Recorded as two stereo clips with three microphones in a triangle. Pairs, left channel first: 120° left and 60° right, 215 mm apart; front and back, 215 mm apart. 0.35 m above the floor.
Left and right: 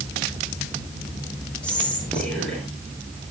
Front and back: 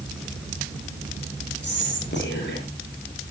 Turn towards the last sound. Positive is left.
turn(degrees=35)